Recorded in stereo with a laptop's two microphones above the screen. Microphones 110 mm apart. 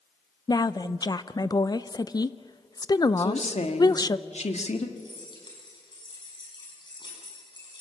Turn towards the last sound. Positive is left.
turn(degrees=40)  # may be behind; listen again after turning